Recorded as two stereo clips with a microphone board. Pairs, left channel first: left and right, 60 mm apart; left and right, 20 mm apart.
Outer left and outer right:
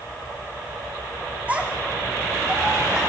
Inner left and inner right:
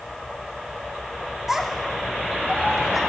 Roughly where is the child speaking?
Right.